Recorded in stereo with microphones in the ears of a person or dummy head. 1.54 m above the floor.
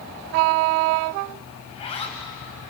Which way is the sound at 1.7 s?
30° left (ahead or behind).